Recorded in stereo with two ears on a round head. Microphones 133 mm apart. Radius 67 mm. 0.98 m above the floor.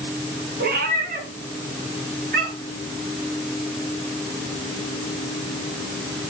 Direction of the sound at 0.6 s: 65° right (ahead or behind).